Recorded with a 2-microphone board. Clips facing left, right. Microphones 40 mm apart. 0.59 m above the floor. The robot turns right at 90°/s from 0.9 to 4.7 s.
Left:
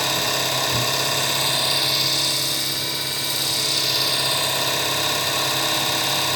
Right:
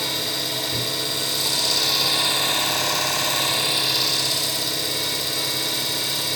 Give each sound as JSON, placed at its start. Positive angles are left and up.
{"t": 0.0, "sound": "an engine running", "azimuth_deg": 90, "distance_m": 2.0}